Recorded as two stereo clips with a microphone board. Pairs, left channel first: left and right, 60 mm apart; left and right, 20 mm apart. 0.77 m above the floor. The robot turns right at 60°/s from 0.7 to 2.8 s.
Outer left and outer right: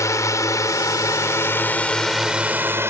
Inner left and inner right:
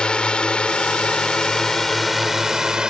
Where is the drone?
60° left (ahead or behind); by 2.9 s 45° right (ahead or behind).